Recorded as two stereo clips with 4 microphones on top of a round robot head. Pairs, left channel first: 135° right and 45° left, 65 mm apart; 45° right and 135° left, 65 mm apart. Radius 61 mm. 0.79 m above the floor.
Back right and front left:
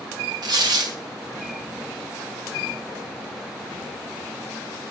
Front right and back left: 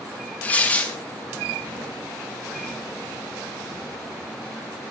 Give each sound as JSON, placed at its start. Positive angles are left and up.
{"t": 0.4, "sound": "tearing paper", "azimuth_deg": 25, "distance_m": 2.0}